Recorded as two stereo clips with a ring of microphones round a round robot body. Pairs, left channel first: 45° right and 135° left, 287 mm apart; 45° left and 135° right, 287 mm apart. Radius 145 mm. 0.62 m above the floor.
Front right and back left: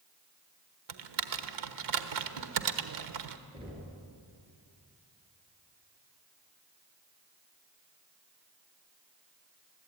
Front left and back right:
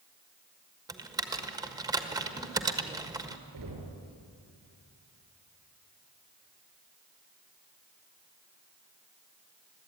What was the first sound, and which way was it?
Typing on a keyboard, 150° left.